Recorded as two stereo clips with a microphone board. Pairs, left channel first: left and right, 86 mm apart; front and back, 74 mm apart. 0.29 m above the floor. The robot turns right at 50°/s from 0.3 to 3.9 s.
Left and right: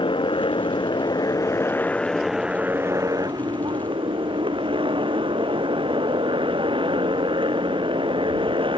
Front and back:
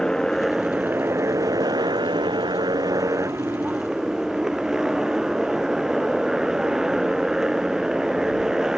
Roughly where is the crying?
I don't hear crying.